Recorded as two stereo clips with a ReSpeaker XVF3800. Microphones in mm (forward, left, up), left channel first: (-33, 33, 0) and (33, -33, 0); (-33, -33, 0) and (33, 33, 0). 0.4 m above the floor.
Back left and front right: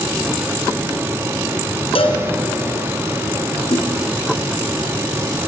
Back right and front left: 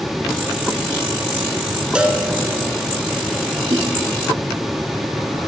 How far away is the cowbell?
About 1.9 m.